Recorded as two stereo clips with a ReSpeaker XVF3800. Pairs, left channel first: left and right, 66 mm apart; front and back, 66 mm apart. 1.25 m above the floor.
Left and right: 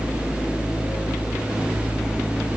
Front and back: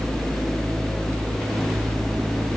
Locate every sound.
Only background noise.